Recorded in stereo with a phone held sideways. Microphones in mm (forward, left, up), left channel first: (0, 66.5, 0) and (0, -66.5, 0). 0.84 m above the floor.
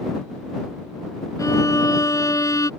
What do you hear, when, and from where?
1.4 s a violin: 25° left (ahead or behind)